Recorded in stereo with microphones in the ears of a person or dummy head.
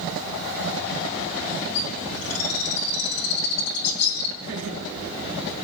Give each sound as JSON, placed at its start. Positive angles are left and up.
{"t": 1.8, "sound": "a bird", "side_deg": 80, "distance_m": 2.0}
{"t": 4.4, "sound": "laughter", "side_deg": -60, "distance_m": 4.5}